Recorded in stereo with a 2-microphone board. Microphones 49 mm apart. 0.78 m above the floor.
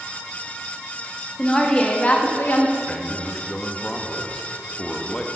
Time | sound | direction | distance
1.4 | a woman speaking | 10° left (ahead or behind) | 1.7 m
2.9 | a man speaking | 20° left (ahead or behind) | 1.1 m